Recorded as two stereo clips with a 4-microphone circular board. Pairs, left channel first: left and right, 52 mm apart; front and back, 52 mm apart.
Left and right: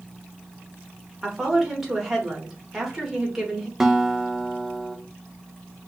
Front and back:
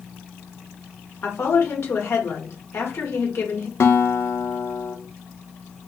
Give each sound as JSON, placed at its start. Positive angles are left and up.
{"t": 1.2, "sound": "a woman speaking", "azimuth_deg": -5, "distance_m": 1.7}
{"t": 3.8, "sound": "a guitar", "azimuth_deg": -10, "distance_m": 0.6}